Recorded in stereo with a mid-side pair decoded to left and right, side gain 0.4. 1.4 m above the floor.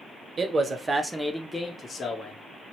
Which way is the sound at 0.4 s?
45° right.